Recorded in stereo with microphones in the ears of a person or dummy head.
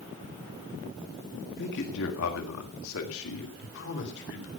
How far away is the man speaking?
About 1.8 m.